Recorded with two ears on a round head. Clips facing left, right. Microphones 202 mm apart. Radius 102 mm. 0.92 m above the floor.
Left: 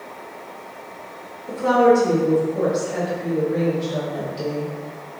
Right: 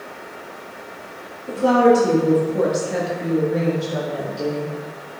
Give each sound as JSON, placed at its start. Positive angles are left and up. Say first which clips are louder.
{"t": 1.5, "sound": "a woman speaking", "louder": "right 1 dB", "side_deg": -30, "distance_m": 1.8}